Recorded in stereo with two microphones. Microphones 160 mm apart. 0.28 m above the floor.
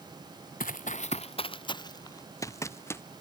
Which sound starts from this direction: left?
Running footsteps, at 0.6 s.